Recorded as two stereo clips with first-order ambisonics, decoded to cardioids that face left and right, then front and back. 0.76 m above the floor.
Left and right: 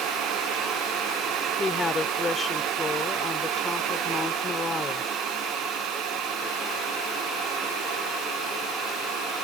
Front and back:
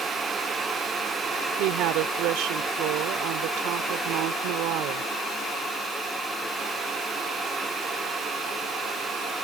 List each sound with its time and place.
1.6 s a woman speaking: 165° left